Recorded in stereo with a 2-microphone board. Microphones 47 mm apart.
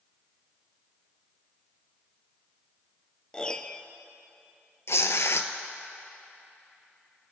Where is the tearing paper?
70° left (ahead or behind), 0.7 m.